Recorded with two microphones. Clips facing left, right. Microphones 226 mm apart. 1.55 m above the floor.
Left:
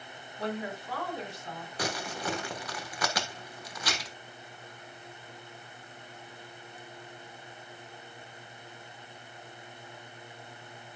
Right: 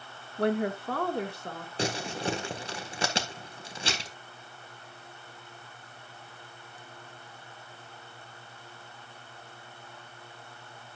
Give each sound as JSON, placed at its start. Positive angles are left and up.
{"t": 0.4, "sound": "a woman speaking", "side_deg": -60, "distance_m": 1.3}
{"t": 1.8, "sound": "crumpling", "side_deg": -25, "distance_m": 1.6}